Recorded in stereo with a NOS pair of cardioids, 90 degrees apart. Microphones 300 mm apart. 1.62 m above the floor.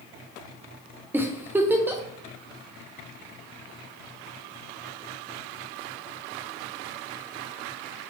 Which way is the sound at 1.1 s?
5° right.